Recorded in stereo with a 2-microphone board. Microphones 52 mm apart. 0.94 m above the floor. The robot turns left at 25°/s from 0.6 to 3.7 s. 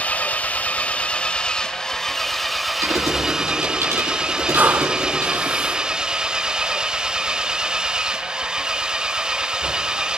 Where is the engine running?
55° left, 0.8 m; by 10.2 s 25° right, 0.8 m.